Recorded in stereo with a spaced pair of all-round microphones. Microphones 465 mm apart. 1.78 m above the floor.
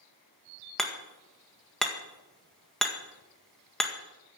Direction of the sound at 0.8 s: Centre (ahead or behind).